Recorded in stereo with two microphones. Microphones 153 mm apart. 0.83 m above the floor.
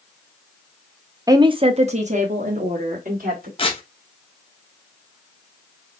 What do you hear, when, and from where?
1.3 s a woman speaking: 25° right (ahead or behind), 0.6 m; by 3.5 s 65° right (ahead or behind), 1.8 m
3.6 s tearing paper: 35° left (ahead or behind), 0.9 m